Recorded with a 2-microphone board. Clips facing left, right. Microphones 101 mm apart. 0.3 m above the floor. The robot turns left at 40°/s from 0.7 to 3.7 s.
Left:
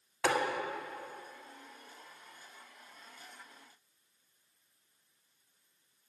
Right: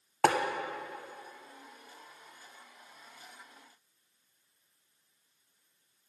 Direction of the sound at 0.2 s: 75° right (ahead or behind).